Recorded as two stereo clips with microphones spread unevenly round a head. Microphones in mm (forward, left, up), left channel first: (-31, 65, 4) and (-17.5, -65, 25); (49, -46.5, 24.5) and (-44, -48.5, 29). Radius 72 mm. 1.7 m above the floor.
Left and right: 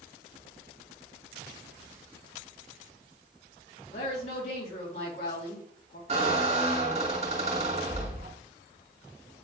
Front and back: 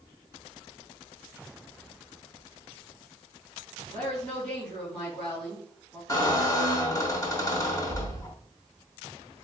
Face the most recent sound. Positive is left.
turn(degrees=-45)